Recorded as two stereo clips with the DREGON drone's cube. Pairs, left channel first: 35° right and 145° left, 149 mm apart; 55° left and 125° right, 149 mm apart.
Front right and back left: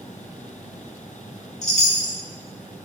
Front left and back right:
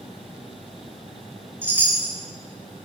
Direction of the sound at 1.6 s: 50° right.